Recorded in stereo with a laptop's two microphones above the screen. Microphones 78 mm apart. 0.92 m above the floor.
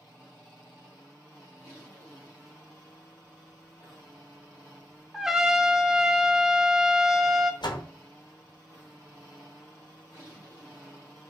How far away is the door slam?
About 0.6 m.